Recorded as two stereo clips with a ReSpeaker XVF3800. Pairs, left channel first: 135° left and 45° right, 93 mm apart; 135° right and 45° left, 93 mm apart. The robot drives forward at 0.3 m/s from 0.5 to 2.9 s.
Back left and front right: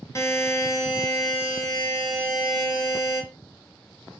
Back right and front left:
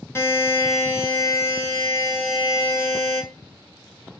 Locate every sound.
0.1 s a buzzer: 175° left, 0.5 m; by 3.2 s straight behind, 1.1 m